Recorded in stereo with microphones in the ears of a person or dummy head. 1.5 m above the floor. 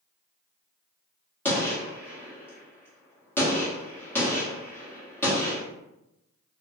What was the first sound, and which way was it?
A gunshot, 10° left (ahead or behind).